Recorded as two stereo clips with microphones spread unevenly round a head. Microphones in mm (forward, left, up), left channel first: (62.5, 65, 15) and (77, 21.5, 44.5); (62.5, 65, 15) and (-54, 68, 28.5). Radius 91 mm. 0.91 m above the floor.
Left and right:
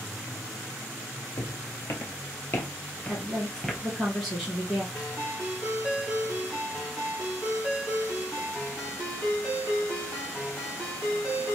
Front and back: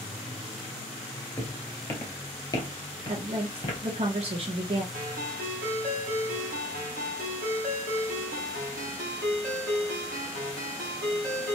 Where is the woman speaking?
160° left, 0.8 m.